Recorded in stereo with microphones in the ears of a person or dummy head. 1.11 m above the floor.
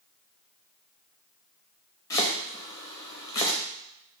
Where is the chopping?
15° left (ahead or behind), 0.7 m.